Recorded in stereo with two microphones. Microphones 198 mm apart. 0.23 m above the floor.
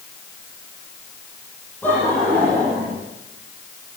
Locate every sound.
1.8 s laughter: 10° left (ahead or behind), 9.5 m